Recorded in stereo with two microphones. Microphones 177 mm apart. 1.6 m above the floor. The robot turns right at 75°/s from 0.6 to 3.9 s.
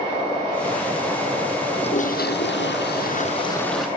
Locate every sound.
1.8 s a toilet flushing: 25° left; by 3.9 s 175° right